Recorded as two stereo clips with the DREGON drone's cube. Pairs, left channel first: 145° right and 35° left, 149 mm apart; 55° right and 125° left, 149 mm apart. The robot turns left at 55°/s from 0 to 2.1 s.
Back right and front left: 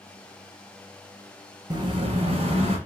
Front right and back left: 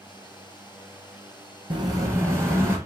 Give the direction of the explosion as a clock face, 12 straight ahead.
9 o'clock.